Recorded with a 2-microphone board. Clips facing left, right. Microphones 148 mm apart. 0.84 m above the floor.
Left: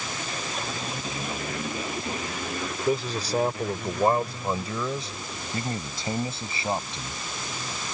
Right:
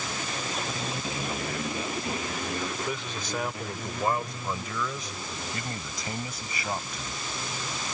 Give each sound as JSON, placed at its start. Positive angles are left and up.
{"t": 2.9, "sound": "a man speaking", "side_deg": 40}